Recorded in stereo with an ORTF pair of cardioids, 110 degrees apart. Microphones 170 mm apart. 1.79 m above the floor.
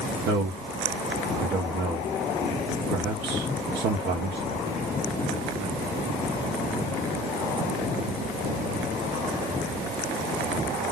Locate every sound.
0.2 s a man speaking: 70° right, 0.8 m